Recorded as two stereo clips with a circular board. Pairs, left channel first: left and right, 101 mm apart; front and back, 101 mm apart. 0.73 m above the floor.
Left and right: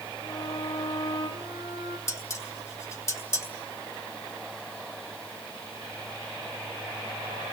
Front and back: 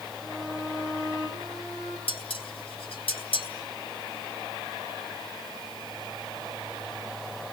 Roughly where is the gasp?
I don't hear a gasp.